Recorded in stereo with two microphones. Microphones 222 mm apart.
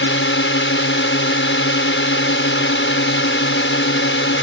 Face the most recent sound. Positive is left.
turn(degrees=60)  # may be behind; listen again after turning